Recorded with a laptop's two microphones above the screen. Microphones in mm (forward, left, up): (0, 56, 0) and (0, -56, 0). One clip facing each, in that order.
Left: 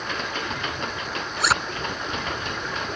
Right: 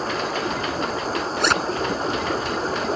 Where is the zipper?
Centre (ahead or behind).